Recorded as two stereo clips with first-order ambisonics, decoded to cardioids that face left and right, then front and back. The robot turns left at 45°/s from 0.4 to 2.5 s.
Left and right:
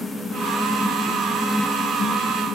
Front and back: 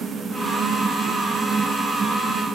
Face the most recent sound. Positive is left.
No sound to turn to.